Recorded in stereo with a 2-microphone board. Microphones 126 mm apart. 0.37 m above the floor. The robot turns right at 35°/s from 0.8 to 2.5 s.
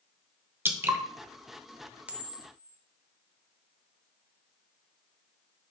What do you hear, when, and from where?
0.7 s dripping: 20° right (ahead or behind), 1.0 m
2.1 s a camera shutter: 10° right (ahead or behind), 0.7 m; by 2.8 s 15° right (ahead or behind), 0.7 m